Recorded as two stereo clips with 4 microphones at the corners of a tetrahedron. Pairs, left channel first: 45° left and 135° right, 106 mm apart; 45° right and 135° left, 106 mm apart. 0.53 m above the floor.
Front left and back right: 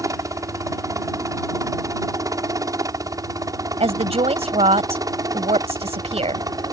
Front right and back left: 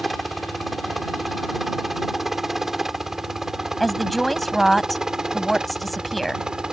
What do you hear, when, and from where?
0.0 s a helicopter: 135° right; by 6.7 s 145° right
3.8 s a woman speaking: 135° right